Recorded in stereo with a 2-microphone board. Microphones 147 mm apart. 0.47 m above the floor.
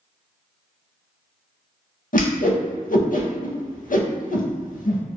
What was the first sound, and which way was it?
A whoosh, 70° left (ahead or behind).